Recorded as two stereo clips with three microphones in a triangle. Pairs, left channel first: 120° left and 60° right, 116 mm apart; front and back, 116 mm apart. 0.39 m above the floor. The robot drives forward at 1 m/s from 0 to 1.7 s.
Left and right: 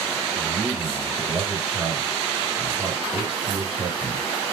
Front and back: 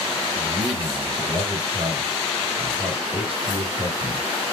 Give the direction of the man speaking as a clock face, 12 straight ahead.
4 o'clock.